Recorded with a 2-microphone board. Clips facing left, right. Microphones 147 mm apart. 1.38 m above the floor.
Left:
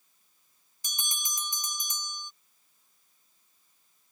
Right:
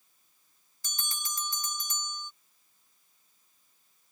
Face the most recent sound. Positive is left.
turn(degrees=15)  # may be behind; listen again after turning